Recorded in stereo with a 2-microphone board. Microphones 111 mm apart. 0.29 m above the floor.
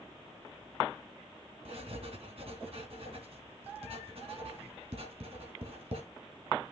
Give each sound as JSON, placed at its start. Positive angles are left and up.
{"t": 1.6, "sound": "writing", "side_deg": -60, "distance_m": 3.0}